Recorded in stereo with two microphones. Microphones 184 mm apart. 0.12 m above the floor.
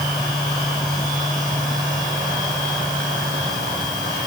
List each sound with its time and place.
Only background noise.